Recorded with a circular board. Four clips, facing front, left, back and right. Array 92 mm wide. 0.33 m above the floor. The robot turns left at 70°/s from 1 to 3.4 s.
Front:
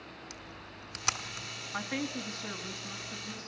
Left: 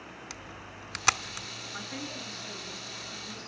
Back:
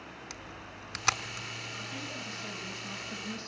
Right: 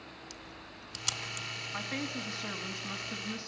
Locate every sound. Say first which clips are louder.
0.3 s a camera shutter: left 4 dB, back 2 dB; 115° left, 1.1 m; by 1.5 s 80° left, 1.1 m
1.7 s a woman speaking: right 3 dB, front 9 dB; 25° right, 3 m; by 3.5 s 140° right, 3 m